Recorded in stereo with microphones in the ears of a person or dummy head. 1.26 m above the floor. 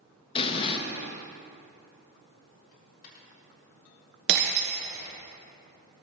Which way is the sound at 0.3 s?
30° left (ahead or behind).